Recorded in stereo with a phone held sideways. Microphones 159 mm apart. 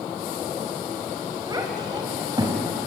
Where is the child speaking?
25° right (ahead or behind), 4 m.